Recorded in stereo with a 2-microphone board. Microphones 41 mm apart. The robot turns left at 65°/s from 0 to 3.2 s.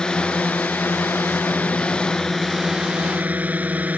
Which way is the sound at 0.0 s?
160° left.